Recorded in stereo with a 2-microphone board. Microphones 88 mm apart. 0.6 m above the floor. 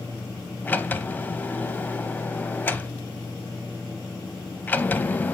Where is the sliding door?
20° left (ahead or behind), 0.6 m.